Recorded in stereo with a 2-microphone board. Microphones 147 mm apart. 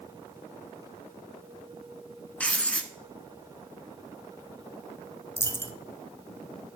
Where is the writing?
10° left (ahead or behind), 0.8 m.